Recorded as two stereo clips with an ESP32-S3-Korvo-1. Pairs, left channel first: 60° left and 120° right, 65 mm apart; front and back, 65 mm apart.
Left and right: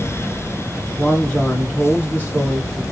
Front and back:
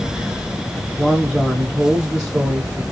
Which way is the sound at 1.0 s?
100° left.